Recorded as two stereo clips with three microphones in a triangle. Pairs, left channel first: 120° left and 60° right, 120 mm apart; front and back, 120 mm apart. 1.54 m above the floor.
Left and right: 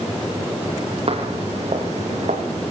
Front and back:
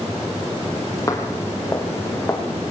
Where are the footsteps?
60° right, 2.5 m; by 2.4 s 70° right, 4 m.